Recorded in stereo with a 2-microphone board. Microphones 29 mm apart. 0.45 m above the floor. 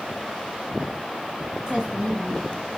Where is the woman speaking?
25° right (ahead or behind), 8.5 m.